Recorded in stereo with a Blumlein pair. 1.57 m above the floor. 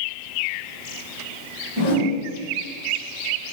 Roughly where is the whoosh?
Ahead left.